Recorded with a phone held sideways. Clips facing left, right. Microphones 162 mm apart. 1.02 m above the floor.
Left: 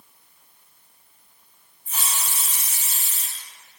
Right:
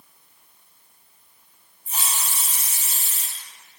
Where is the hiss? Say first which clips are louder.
Right 1 dB; 35° right (ahead or behind), 1.9 m.